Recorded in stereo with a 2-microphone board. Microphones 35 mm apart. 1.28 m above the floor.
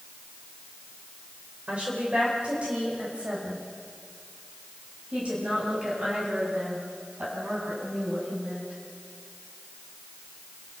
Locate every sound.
1.7 s a woman speaking: 35° right (ahead or behind), 4.5 m; by 8.8 s 45° right (ahead or behind), 10.5 m